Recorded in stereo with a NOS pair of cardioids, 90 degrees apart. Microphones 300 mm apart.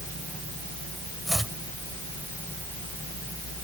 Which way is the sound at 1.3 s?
Straight ahead.